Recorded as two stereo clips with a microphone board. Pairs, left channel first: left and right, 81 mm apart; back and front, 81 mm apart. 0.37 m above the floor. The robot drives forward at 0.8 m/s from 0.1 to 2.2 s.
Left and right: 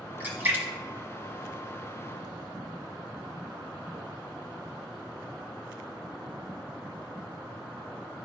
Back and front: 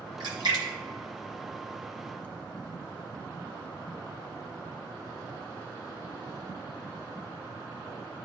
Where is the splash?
20° right, 1.5 m; by 2.2 s 115° right, 0.7 m.